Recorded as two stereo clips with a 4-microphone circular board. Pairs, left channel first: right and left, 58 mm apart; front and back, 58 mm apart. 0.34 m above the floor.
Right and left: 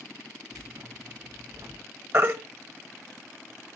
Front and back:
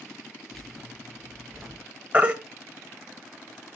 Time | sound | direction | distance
0.5 | keys jangling | 85° left | 3.5 m
2.1 | a baby crying | 120° left | 1.3 m